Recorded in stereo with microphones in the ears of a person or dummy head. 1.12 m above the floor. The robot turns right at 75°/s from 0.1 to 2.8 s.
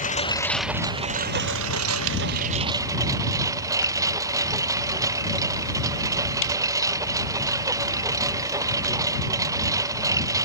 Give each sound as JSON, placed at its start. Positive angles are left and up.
{"t": 0.0, "sound": "a lawn mower", "azimuth_deg": 140}